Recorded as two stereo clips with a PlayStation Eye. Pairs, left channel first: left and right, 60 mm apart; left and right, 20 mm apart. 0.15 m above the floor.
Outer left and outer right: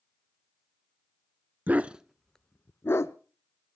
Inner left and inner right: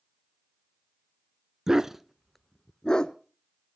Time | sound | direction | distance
1.7 | a dog barking | 30° right (ahead or behind) | 0.6 m